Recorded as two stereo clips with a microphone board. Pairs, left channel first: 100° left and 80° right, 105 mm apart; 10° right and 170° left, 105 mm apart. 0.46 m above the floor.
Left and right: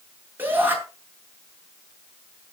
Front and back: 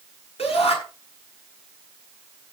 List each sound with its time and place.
0.4 s a shout: 10° right, 6 m